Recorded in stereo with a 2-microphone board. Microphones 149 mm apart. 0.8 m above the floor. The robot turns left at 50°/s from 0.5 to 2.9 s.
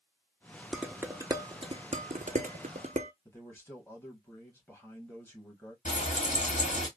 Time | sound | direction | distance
0.7 | dishes clattering | 5° right (ahead or behind) | 0.5 m
3.2 | a man speaking | 15° left (ahead or behind) | 1.3 m
5.8 | frying | 55° left (ahead or behind) | 1.1 m